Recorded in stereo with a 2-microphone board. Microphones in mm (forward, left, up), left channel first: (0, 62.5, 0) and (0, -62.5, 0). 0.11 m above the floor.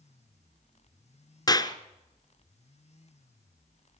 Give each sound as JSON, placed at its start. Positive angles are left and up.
{"t": 1.5, "sound": "a clap", "side_deg": 30, "distance_m": 1.2}